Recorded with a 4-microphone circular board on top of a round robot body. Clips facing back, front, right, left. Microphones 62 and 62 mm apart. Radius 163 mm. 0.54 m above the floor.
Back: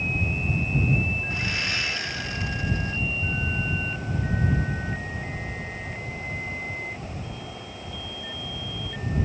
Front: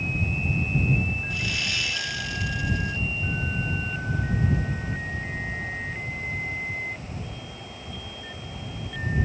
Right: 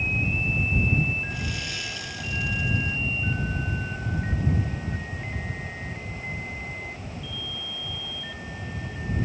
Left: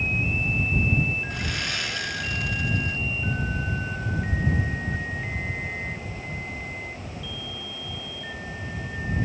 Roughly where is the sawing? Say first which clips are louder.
Back 1 dB, left 3 dB; behind left.